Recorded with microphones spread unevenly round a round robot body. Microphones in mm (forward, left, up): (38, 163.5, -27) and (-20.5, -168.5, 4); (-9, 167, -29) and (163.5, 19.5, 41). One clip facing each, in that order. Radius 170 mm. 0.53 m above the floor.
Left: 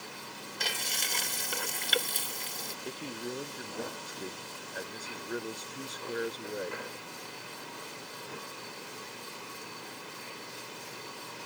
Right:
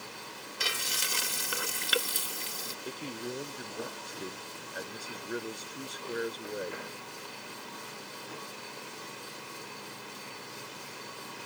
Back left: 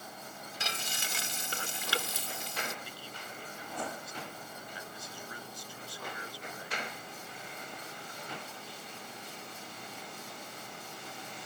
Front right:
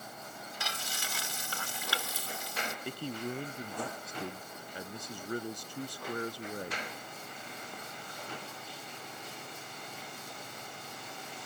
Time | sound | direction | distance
0.6 | frying | straight behind | ?
2.9 | a man speaking | 10° right | ?